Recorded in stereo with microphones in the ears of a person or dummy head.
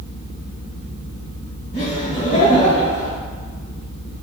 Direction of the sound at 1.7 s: 40° left (ahead or behind).